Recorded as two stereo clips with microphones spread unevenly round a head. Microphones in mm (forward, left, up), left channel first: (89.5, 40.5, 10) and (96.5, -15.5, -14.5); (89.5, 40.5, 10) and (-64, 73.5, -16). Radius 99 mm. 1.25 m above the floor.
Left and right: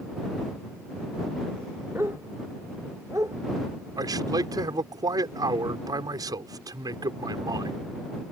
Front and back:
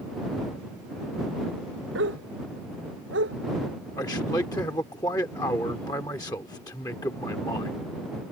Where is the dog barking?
160° right.